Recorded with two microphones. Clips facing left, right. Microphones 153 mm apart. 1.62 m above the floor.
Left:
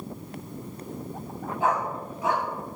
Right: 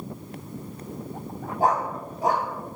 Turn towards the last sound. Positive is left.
turn(degrees=-40)  # may be behind; listen again after turning